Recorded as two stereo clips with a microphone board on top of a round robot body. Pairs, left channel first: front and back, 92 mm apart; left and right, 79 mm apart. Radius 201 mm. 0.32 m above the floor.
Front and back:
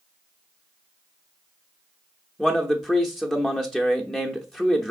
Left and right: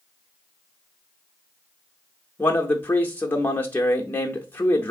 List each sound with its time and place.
2.4 s a man speaking: 80° left, 0.9 m